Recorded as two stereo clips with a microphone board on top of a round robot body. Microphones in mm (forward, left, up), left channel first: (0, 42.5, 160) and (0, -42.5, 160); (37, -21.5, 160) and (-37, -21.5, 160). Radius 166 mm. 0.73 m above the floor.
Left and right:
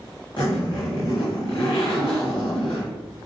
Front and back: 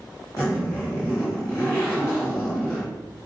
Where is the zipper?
55° left, 0.8 m.